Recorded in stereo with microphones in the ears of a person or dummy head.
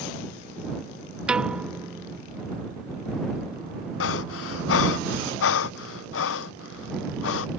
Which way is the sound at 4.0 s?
75° left (ahead or behind).